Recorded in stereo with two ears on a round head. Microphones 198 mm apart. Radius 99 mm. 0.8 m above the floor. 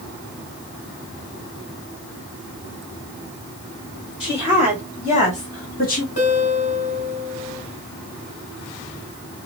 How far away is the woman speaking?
About 3 m.